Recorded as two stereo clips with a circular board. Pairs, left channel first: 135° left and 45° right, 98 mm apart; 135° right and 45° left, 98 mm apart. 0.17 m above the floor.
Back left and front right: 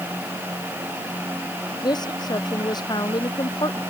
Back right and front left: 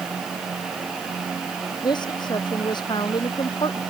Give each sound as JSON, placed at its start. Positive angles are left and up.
{"t": 1.8, "sound": "a woman speaking", "azimuth_deg": 180}